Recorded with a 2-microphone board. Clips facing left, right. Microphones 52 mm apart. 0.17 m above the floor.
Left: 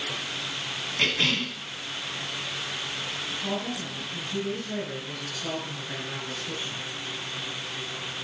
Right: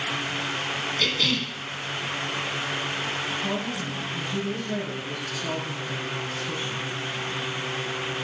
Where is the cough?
30° left (ahead or behind), 1.1 m.